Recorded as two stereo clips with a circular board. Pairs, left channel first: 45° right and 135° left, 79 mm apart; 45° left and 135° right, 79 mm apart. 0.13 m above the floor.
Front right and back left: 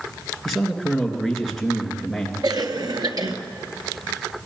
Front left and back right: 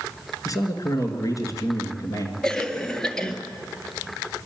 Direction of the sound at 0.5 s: 45° left.